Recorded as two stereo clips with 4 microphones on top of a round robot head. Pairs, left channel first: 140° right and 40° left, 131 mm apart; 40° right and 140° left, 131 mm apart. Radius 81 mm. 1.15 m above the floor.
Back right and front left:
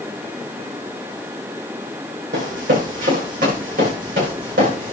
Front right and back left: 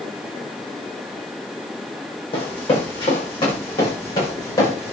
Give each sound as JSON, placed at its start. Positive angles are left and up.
{"t": 2.3, "sound": "running footsteps", "azimuth_deg": 10, "distance_m": 3.5}